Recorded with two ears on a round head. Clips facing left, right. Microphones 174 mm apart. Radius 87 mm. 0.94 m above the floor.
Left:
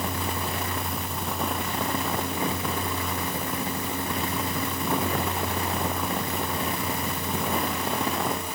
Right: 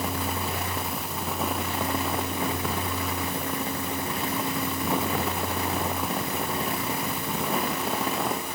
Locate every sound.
Only background noise.